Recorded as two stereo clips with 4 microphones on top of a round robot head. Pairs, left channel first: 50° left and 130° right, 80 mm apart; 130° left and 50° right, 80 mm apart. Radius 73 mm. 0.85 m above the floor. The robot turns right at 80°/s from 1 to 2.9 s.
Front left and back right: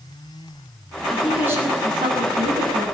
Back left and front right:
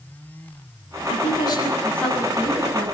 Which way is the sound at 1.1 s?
135° left.